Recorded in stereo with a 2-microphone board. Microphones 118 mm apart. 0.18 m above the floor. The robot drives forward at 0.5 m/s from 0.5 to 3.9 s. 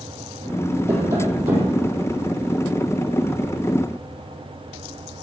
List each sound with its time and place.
0.9 s tapping: 25° right (ahead or behind), 3.5 m; by 1.8 s 20° right (ahead or behind), 4 m